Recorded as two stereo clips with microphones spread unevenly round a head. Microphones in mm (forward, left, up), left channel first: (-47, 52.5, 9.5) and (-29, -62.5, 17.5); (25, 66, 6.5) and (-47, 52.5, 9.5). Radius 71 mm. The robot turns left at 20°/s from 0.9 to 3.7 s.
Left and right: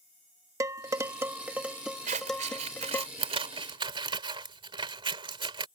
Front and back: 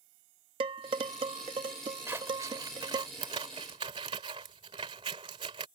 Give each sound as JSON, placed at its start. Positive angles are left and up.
{"t": 0.6, "sound": "dishes clattering", "azimuth_deg": -145}
{"t": 2.1, "sound": "scissors", "azimuth_deg": -95}